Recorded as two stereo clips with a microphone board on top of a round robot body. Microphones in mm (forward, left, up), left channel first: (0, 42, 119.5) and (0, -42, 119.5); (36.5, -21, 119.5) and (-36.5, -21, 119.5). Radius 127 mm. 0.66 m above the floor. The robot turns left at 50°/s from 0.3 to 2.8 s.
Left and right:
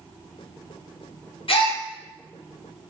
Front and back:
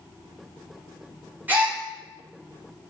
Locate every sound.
1.5 s a gasp: 110° left, 0.8 m; by 1.8 s 95° left, 0.8 m